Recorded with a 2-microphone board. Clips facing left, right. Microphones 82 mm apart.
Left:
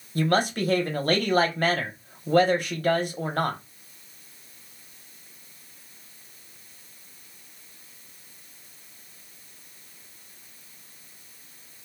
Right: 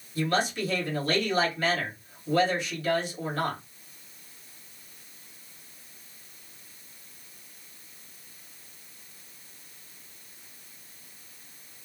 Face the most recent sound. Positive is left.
turn(degrees=50)  # may be behind; listen again after turning